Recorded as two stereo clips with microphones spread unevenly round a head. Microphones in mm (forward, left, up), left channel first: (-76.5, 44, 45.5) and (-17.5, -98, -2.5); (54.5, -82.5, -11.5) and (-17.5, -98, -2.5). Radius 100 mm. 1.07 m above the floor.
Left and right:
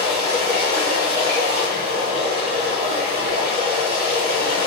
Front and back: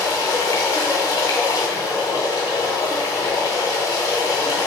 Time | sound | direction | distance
0.0 | running water | 20° right | 1.9 m